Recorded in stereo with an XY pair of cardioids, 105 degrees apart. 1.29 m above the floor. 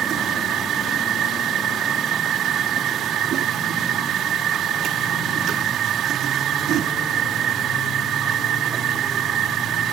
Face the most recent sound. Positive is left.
turn(degrees=-70)